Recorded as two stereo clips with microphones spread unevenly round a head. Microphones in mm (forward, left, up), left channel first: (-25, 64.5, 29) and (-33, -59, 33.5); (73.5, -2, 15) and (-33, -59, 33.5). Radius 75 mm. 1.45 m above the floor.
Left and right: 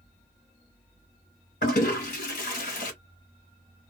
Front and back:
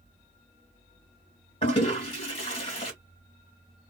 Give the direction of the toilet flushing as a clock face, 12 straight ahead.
9 o'clock.